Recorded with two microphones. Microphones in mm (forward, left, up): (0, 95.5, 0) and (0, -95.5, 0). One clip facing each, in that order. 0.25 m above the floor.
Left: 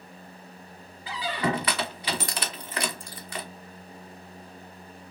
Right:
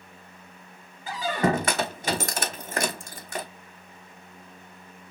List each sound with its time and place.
1.1 s a squeak: 50° right (ahead or behind), 0.7 m